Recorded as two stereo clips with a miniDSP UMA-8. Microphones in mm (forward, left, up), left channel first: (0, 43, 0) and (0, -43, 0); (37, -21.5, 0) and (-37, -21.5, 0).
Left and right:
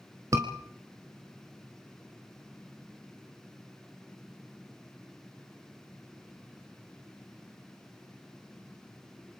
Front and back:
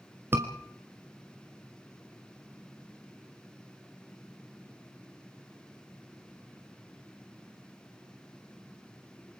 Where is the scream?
130° right, 1.7 m.